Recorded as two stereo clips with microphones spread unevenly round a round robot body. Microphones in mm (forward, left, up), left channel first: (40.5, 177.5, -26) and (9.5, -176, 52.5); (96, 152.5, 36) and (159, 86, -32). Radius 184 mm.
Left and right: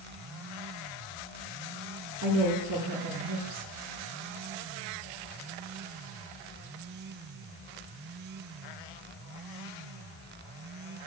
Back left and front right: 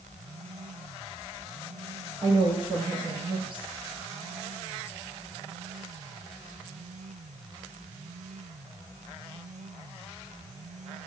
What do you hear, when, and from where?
2.2 s a woman speaking: 50° right, 8.5 m